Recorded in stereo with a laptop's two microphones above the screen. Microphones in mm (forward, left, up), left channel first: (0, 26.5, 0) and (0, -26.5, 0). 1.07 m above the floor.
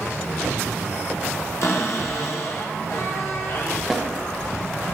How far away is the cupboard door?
About 0.8 m.